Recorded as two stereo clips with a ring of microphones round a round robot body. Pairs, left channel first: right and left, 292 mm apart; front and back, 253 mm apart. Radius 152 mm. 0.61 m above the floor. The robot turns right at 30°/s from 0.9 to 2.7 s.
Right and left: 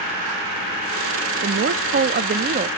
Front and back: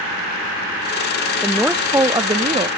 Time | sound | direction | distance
1.4 | a woman speaking | 90° left | 0.6 m